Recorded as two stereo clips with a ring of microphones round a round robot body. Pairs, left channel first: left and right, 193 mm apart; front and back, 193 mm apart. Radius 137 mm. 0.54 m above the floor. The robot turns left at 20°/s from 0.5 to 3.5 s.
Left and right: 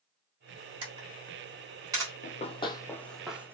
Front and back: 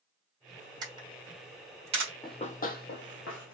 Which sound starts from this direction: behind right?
A camera shutter, at 0.8 s.